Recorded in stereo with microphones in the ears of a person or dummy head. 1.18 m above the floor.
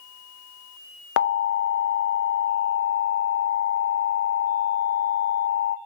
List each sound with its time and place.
1.2 s an alarm: 70° left (ahead or behind), 0.5 m